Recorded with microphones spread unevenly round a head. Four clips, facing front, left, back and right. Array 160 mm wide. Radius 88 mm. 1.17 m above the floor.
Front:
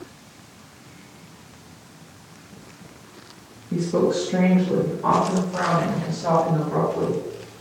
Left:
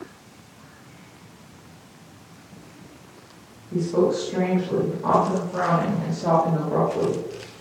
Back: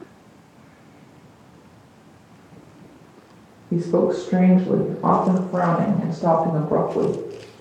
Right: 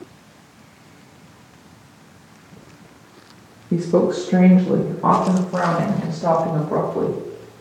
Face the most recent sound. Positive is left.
turn(degrees=-170)